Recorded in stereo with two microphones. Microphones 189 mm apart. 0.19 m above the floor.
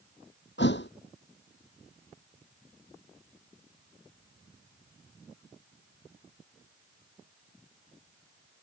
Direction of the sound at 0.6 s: 75° left (ahead or behind).